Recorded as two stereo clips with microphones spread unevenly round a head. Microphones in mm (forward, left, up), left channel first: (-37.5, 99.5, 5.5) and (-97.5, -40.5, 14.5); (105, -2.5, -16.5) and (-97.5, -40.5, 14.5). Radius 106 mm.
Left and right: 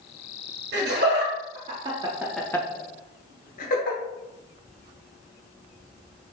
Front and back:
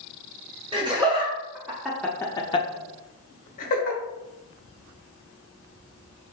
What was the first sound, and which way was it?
Laughter, 95° right.